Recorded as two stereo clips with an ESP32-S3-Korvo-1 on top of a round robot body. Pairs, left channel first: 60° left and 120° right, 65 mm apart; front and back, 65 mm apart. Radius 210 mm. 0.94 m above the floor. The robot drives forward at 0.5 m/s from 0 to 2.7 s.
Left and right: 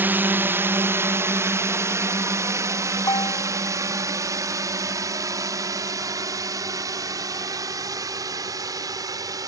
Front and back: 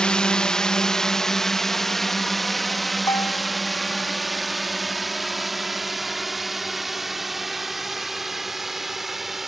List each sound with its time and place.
0.0 s a drone: 70° right; by 9.5 s 95° right
3.1 s a bell: 35° left